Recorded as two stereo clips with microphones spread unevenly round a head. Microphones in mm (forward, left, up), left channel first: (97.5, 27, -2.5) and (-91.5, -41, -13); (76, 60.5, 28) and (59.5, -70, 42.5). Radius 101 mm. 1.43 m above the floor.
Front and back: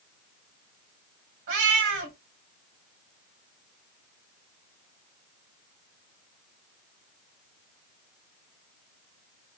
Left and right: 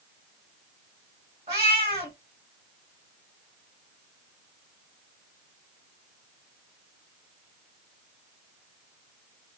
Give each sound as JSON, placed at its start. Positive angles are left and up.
{"t": 1.5, "sound": "a cat meowing", "azimuth_deg": -140, "distance_m": 1.9}